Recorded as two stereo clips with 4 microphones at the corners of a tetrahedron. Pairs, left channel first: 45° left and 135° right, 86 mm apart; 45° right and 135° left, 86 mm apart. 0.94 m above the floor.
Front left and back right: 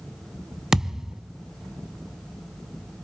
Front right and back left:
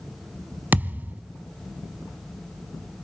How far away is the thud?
About 0.8 m.